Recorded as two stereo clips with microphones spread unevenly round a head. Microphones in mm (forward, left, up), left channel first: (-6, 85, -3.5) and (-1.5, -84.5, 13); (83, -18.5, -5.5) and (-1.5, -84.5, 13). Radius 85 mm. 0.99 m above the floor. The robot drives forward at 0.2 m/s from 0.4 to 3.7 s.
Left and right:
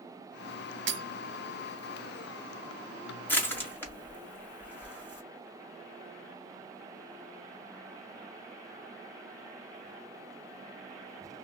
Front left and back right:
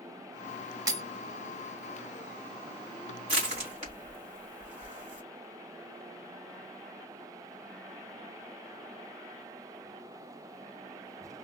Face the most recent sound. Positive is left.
turn(degrees=170)